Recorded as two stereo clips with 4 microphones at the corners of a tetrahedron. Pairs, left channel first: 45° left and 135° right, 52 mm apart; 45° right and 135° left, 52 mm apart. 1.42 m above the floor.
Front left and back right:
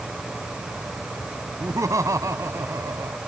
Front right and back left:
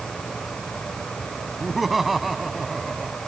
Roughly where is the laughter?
Behind right.